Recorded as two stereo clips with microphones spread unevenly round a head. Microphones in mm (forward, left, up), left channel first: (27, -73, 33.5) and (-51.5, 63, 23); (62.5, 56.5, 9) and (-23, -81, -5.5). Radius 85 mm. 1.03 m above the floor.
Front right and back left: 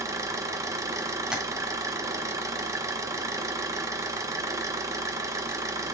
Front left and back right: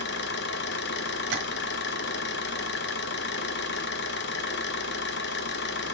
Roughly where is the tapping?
Behind right.